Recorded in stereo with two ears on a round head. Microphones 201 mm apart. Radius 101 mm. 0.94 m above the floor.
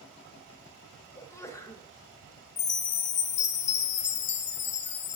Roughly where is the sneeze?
Centre.